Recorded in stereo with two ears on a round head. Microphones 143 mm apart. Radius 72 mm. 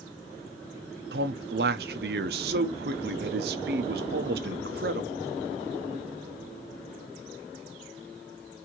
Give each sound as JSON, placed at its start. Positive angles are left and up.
{"t": 1.1, "sound": "a man speaking", "side_deg": -70, "distance_m": 0.7}